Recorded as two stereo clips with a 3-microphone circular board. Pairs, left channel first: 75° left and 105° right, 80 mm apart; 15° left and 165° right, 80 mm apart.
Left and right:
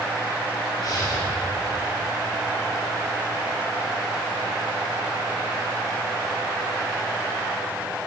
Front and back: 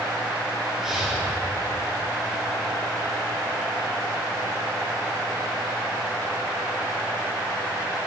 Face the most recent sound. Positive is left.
turn(degrees=115)